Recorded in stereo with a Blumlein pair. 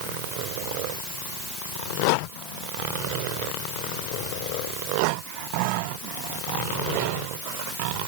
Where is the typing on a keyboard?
I don't hear typing on a keyboard.